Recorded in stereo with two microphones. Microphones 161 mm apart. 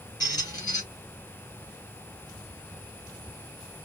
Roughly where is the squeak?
Left.